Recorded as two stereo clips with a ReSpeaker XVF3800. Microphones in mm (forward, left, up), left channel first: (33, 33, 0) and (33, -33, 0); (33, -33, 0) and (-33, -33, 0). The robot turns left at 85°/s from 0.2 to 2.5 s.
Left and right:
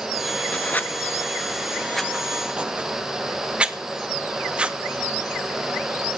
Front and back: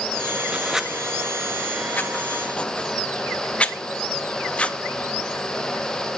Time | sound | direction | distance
0.5 | writing | 125° left | 0.5 m